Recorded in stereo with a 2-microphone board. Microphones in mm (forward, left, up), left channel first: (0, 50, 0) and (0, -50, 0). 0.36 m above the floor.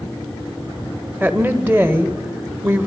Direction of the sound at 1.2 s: 20° right (ahead or behind).